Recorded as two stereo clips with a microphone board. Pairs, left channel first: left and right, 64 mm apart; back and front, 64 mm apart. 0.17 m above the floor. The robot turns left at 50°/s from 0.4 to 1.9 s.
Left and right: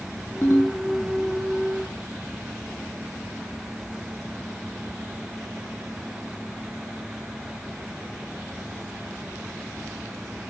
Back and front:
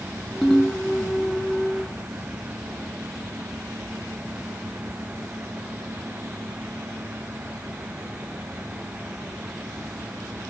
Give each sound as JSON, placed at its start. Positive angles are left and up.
{"t": 0.4, "sound": "a ringtone", "azimuth_deg": 100, "distance_m": 0.9}